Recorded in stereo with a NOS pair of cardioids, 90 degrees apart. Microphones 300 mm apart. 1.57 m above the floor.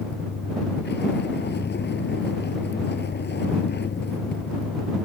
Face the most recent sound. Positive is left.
turn(degrees=35)